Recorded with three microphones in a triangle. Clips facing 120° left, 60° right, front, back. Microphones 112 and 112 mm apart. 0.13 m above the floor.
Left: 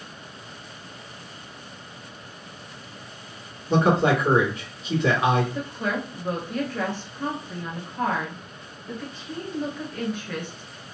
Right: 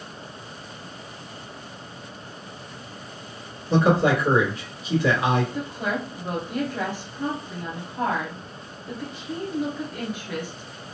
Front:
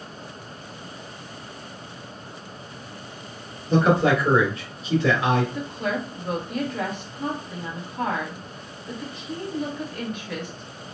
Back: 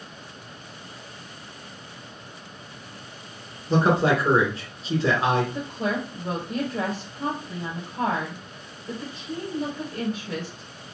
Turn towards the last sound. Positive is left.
turn(degrees=-135)